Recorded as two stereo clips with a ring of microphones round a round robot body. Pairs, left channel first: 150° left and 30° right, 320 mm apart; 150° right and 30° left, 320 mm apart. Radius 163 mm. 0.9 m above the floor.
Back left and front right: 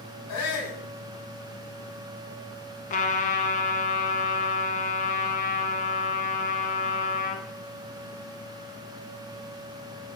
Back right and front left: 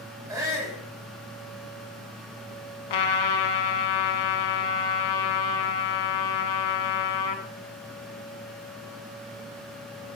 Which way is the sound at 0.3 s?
110° left.